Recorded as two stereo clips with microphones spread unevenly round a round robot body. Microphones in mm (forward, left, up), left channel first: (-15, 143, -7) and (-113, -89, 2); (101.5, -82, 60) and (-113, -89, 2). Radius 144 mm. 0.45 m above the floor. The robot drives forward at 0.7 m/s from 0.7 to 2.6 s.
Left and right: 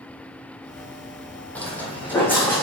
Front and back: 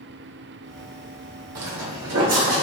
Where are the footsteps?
150° left, 1.0 m.